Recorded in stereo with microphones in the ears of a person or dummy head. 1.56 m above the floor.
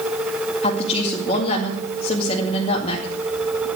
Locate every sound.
0.6 s a woman speaking: 35° left (ahead or behind), 2.0 m